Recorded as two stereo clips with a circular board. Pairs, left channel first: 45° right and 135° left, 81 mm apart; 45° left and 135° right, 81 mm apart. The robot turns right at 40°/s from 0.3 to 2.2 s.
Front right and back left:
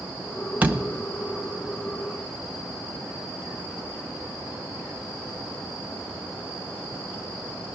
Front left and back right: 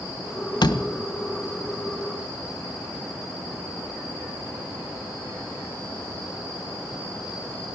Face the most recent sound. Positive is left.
turn(degrees=130)